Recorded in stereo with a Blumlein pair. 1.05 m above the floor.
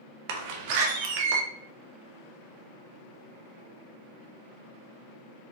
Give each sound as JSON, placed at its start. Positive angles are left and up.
{"t": 0.3, "sound": "a door slam", "azimuth_deg": -45, "distance_m": 0.7}